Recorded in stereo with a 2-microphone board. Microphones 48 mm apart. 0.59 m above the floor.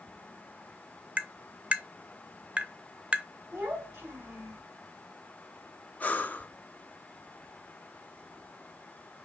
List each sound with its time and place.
1.2 s tapping: 25° right (ahead or behind), 0.6 m
3.5 s a child speaking: 40° right (ahead or behind), 1.7 m
6.0 s breathing: 35° left (ahead or behind), 0.6 m